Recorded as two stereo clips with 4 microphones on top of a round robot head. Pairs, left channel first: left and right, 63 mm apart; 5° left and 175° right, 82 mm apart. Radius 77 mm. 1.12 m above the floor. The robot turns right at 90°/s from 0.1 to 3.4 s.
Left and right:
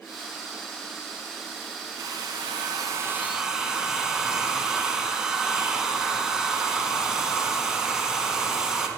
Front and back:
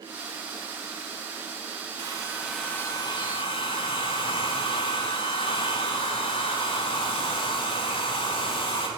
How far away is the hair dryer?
About 1.7 m.